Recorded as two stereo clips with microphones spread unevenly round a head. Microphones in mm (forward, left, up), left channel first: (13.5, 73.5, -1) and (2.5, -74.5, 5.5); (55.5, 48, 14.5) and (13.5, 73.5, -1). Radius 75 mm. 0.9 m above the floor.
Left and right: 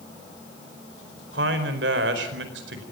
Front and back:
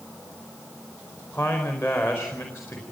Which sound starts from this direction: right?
A man speaking, at 1.3 s.